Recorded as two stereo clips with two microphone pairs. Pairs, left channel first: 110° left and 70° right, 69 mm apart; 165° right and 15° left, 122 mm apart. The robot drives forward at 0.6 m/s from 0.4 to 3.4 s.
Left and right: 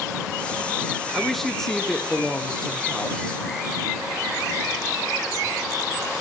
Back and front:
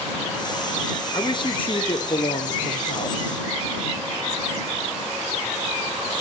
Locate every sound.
1.1 s a man speaking: 165° right, 1.6 m; by 3.4 s 175° right, 2.5 m